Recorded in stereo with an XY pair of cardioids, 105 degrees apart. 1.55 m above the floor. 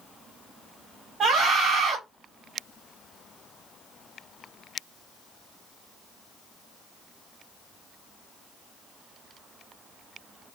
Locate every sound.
1.2 s a scream: 55° right, 3 m